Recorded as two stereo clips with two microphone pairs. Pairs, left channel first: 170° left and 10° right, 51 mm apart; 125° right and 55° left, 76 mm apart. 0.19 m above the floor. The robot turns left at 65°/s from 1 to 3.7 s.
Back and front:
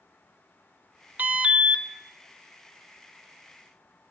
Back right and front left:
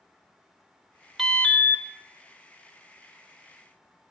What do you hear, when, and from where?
1.2 s an alarm: 40° right, 0.9 m; by 1.9 s 85° right, 0.9 m